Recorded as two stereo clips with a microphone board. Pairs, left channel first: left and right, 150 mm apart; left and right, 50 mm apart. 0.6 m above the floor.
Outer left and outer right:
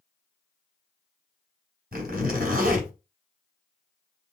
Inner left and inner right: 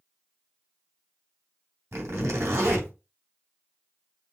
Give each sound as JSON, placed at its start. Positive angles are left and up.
{"t": 1.9, "sound": "a zipper", "side_deg": -80, "distance_m": 2.5}